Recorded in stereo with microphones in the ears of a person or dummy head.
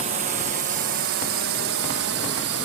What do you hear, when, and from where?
0.0 s a drone: 40° right (ahead or behind); by 2.6 s 70° right (ahead or behind)